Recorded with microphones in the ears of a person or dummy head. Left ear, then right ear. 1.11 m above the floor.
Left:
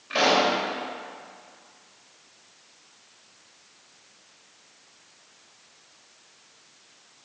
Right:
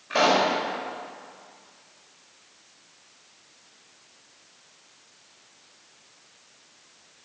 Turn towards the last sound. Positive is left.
turn(degrees=-15)  # may be behind; listen again after turning